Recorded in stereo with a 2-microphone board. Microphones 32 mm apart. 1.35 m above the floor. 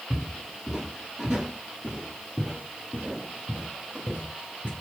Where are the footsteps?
10° right (ahead or behind), 1.9 m; by 4.7 s 40° right (ahead or behind), 2.5 m.